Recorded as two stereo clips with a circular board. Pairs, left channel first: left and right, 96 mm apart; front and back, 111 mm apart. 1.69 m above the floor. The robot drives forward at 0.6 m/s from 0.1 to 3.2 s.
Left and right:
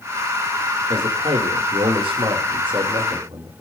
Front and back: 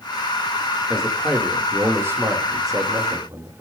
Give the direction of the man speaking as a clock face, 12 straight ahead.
3 o'clock.